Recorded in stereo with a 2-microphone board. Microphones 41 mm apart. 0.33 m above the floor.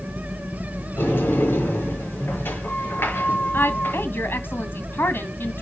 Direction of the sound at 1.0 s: 70° left (ahead or behind).